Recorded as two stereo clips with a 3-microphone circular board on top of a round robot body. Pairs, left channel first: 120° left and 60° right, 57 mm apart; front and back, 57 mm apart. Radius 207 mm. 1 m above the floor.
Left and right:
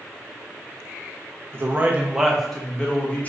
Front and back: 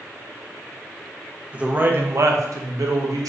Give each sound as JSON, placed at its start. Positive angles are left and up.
{"t": 1.5, "sound": "a man speaking", "azimuth_deg": -110, "distance_m": 0.8}